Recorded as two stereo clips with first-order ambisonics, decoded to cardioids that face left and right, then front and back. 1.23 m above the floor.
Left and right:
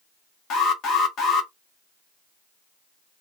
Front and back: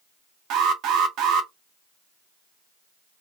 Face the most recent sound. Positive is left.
turn(degrees=140)